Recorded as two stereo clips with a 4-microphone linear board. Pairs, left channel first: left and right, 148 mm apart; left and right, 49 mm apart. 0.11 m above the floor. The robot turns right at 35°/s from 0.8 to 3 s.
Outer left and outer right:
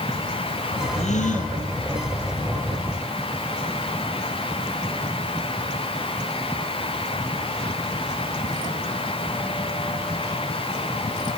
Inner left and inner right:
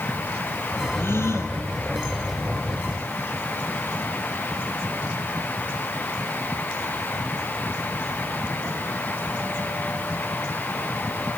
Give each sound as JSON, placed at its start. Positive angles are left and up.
{"t": 1.0, "sound": "a gasp", "side_deg": 50, "distance_m": 1.8}